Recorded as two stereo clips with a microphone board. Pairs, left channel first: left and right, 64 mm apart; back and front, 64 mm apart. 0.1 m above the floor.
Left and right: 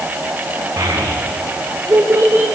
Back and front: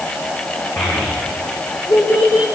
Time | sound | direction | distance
0.8 | a child speaking | 130° right | 4 m